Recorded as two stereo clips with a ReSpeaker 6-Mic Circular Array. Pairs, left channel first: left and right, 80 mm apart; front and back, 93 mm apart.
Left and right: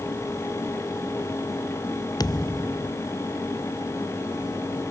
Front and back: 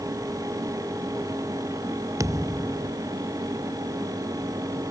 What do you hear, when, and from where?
2.2 s a thud: 125° left